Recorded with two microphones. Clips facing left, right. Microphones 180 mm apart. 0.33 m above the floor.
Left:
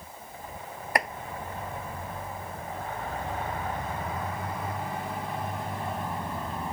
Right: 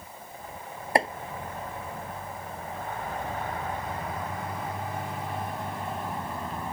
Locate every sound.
0.9 s chopping: 30° right (ahead or behind)